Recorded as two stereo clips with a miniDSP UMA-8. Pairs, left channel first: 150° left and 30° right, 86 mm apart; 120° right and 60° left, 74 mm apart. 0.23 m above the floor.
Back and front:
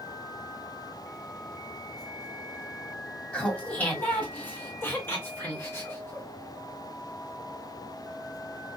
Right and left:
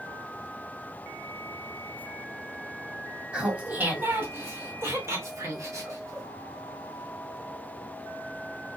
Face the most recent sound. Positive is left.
turn(degrees=90)